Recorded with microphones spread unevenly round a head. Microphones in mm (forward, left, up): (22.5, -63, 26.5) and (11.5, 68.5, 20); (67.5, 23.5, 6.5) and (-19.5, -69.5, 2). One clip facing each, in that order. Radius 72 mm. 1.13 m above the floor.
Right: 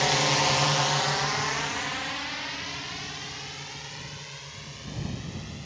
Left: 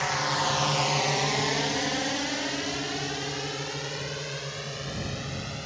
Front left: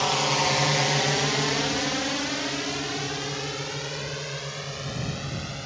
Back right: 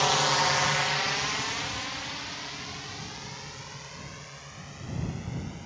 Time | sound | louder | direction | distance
0.0 | a drone | right 3 dB, front left 1 dB | 40° right | ?